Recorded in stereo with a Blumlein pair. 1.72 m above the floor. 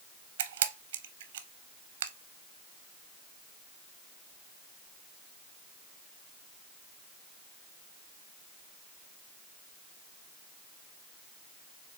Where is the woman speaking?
I don't hear a woman speaking.